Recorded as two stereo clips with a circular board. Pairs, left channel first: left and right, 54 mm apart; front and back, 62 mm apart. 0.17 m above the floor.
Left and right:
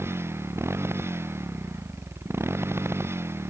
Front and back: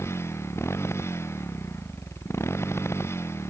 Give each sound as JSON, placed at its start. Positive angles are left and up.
{"t": 0.0, "sound": "a motorcycle", "azimuth_deg": -50}